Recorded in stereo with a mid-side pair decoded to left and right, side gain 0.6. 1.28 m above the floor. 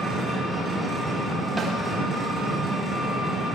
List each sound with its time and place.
0.0 s an engine running: 5° left, 8 m
1.6 s a snare drum: 25° right, 4.5 m